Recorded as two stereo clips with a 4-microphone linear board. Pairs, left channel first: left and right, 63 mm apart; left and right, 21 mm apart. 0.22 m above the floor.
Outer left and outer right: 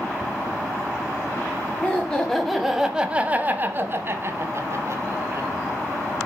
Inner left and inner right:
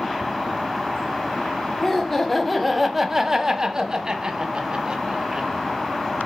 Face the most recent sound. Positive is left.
turn(degrees=-50)  # may be behind; listen again after turning